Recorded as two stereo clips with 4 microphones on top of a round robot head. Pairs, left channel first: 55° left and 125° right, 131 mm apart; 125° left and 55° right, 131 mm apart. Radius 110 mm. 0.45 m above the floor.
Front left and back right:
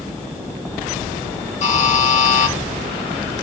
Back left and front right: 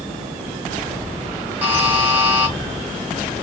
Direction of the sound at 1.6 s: 20° left.